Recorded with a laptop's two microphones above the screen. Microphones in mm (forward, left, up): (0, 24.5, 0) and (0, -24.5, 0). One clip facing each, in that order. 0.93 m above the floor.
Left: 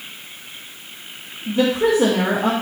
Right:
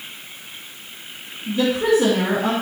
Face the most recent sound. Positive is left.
turn(degrees=35)  # may be behind; listen again after turning